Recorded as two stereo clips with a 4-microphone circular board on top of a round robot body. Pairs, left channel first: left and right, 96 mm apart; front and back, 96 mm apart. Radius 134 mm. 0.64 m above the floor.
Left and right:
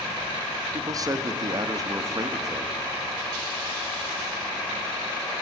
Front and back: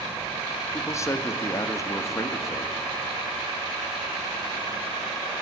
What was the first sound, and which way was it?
A man speaking, 50° right.